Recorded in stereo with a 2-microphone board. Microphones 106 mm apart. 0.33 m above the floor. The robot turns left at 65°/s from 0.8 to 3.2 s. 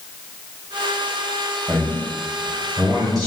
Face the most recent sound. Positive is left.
turn(degrees=-40)  # may be behind; listen again after turning